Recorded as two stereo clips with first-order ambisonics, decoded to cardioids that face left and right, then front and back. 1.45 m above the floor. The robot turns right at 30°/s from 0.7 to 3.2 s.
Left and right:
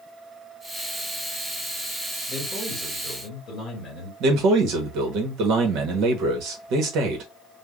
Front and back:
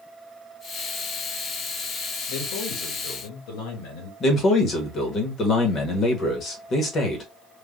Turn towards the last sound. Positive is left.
turn(degrees=-60)